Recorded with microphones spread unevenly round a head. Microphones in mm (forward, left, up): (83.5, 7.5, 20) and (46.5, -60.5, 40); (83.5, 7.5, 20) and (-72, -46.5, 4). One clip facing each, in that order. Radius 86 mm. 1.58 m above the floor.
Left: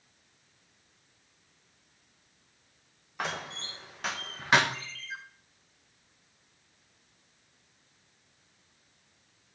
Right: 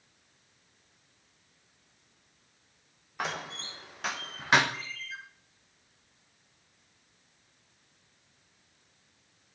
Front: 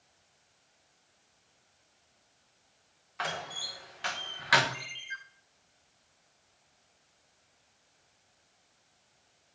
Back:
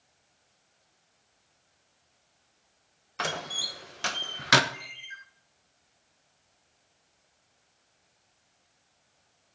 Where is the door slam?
165° left, 0.9 m.